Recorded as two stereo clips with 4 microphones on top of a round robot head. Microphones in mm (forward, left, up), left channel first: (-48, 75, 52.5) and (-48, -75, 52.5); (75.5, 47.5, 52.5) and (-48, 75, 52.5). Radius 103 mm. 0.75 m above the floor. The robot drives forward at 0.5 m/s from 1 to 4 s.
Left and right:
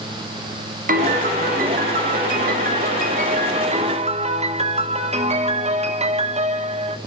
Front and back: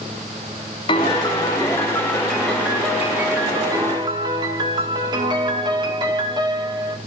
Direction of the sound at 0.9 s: 65° right.